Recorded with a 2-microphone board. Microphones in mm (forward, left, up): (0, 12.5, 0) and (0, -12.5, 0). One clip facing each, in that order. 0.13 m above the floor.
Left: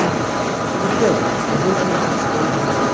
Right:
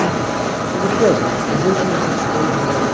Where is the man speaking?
30° right (ahead or behind), 4 m; by 2.8 s 35° right (ahead or behind), 7 m.